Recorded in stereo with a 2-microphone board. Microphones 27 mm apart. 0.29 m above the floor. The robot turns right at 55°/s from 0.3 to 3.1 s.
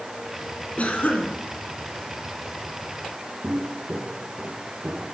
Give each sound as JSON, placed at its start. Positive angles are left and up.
{"t": 0.8, "sound": "a cough", "azimuth_deg": 55, "distance_m": 3.0}
{"t": 3.4, "sound": "footsteps", "side_deg": -85, "distance_m": 1.9}